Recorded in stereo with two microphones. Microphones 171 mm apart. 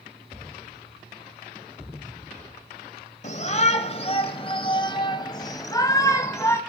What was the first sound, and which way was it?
A shout, 45° left (ahead or behind).